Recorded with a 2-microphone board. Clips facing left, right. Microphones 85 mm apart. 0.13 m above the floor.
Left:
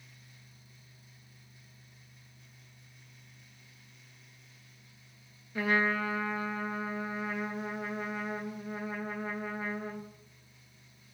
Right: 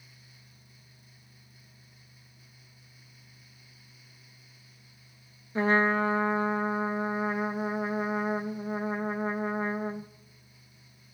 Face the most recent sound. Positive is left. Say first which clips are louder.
# right 5 dB
turn(degrees=-30)  # may be behind; listen again after turning